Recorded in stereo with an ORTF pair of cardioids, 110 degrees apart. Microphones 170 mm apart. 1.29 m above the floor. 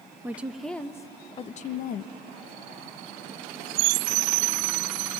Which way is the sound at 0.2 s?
10° right.